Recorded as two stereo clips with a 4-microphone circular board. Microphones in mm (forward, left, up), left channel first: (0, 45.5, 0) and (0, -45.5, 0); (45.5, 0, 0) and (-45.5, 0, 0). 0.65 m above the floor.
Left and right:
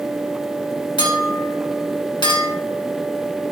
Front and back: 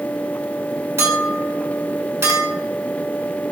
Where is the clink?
120° left, 2 m.